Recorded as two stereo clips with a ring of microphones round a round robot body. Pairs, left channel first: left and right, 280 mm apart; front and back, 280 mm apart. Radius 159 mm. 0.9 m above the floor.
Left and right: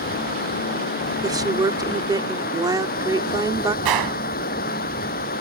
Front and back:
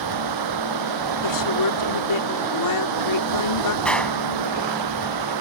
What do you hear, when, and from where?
0.0 s running water: 155° left
1.2 s a woman speaking: 10° right
3.9 s a gunshot: 85° right